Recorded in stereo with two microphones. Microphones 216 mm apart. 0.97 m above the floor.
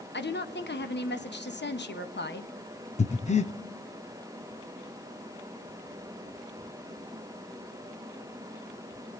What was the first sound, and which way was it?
A woman speaking, 55° left (ahead or behind).